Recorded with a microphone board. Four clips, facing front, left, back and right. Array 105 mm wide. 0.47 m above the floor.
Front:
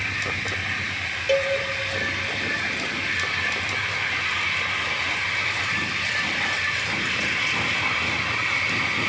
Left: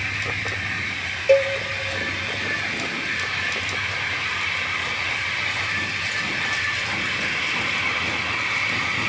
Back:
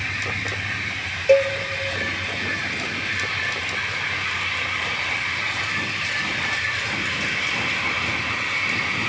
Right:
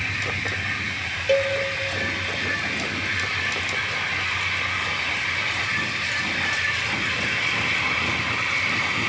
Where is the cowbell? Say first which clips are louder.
Left 4 dB, back 6 dB; 145° left, 0.6 m.